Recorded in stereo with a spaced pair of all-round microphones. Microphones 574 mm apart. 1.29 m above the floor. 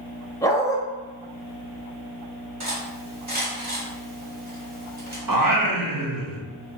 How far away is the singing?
About 0.9 m.